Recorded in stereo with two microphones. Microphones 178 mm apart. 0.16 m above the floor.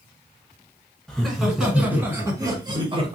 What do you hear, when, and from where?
1.1 s laughter: 5° left (ahead or behind), 1.8 m; by 3.2 s 35° right (ahead or behind), 1.4 m